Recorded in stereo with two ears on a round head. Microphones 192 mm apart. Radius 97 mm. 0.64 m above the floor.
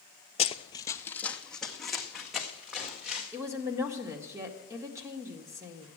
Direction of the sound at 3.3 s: 15° right (ahead or behind).